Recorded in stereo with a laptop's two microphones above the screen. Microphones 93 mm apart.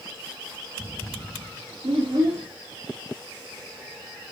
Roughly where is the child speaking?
Right.